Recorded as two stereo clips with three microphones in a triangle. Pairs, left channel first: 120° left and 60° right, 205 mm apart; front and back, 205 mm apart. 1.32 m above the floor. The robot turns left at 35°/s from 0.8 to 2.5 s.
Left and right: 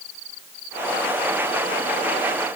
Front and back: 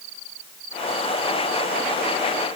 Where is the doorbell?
No doorbell in this recording.